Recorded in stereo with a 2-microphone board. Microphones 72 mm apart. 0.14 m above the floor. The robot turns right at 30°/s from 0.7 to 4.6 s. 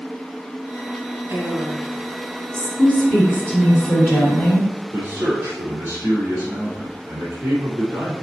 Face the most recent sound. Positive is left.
turn(degrees=-30)  # may be behind; listen again after turning